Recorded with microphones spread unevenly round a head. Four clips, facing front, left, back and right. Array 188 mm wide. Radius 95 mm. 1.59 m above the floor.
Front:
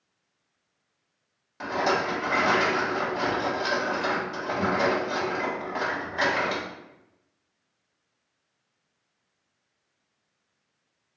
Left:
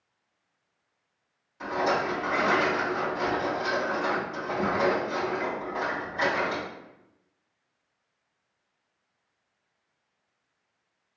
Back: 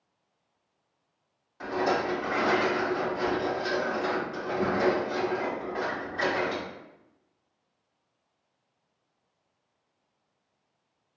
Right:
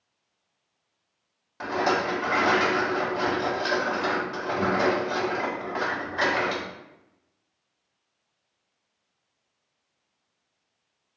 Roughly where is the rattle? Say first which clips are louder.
Right 2 dB, front 1 dB; ahead right.